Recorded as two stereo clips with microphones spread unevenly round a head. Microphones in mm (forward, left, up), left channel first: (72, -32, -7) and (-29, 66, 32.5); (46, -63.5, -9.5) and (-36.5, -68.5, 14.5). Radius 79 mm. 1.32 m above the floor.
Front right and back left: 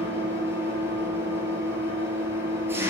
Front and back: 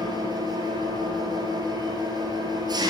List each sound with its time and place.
0.0 s an engine running: 150° right, 7 m